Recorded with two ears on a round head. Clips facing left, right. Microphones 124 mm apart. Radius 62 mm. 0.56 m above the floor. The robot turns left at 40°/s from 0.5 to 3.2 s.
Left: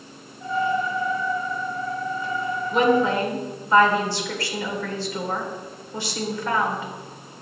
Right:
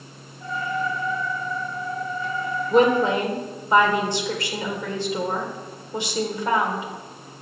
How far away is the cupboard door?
No cupboard door in this recording.